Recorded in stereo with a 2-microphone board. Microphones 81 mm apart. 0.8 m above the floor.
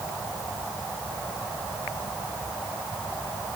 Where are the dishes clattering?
No dishes clattering in this recording.